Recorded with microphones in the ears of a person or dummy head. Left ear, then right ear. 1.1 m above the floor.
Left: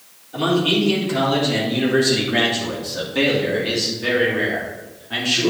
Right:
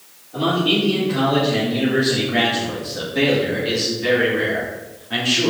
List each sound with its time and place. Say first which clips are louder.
0.3 s a man speaking: even; 65° left (ahead or behind), 3.5 m; by 5.5 s 5° right (ahead or behind), 3 m